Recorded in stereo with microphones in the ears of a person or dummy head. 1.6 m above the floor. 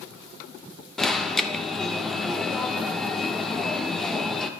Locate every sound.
1.0 s an alarm: 5° left (ahead or behind), 0.5 m